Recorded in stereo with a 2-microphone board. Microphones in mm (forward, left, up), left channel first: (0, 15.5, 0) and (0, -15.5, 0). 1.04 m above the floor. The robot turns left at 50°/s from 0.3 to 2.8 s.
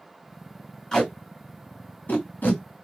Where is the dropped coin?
I don't hear a dropped coin.